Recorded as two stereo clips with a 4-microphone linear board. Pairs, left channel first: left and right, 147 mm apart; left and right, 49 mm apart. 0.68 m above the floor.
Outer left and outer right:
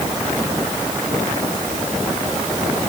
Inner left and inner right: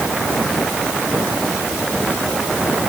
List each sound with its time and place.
Only background noise.